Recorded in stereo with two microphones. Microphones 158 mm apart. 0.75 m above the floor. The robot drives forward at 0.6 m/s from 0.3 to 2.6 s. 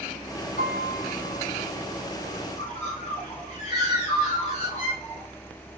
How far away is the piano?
About 2 m.